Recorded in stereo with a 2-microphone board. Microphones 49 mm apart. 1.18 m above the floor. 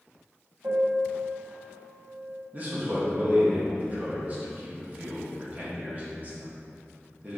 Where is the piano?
60° right (ahead or behind), 1.8 m.